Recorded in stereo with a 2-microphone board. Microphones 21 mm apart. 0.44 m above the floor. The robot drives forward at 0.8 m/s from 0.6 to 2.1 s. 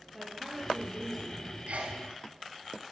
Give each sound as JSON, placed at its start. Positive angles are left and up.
{"t": 0.1, "sound": "a woman speaking", "side_deg": 5, "distance_m": 10.0}
{"t": 1.7, "sound": "a sneeze", "side_deg": -75, "distance_m": 5.0}